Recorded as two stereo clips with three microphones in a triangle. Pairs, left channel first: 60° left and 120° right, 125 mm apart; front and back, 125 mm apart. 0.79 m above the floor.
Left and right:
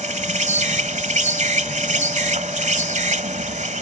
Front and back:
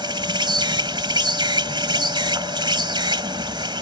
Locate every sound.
0.0 s an insect: 130° right